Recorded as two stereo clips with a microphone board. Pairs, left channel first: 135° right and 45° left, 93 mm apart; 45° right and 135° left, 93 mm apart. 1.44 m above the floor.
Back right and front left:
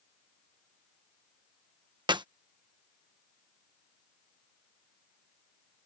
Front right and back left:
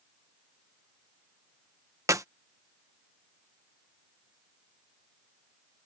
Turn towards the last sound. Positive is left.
turn(degrees=80)